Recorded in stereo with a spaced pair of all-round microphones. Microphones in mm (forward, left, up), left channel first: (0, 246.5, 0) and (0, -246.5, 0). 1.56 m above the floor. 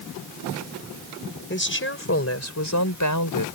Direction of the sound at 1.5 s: 20° left (ahead or behind).